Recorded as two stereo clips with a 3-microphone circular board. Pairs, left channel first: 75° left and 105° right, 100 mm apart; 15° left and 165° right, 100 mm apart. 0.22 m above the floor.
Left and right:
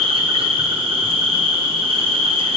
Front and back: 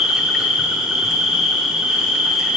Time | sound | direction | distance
0.0 | an insect | 80° right | 0.8 m